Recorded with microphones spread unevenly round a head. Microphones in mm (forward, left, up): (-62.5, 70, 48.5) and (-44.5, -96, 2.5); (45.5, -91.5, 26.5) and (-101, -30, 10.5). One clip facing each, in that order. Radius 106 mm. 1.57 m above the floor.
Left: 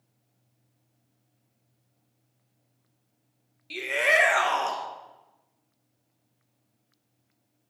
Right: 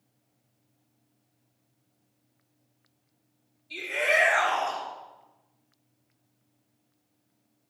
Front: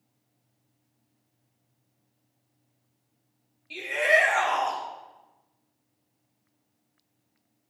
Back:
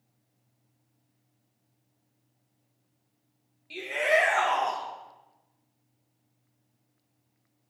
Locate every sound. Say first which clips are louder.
3.7 s a shout: left 2 dB, front 1 dB; 65° left, 1.4 m